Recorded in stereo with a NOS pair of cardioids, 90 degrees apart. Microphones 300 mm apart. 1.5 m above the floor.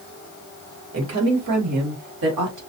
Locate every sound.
0.9 s a woman speaking: 55° right, 2.5 m; by 2.6 s 80° right, 2.5 m